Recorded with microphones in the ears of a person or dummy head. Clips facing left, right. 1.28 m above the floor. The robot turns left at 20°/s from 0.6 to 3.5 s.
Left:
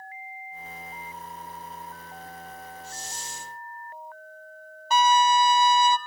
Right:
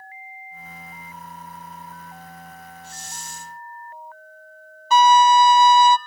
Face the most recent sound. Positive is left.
turn(degrees=-60)  # may be behind; listen again after turning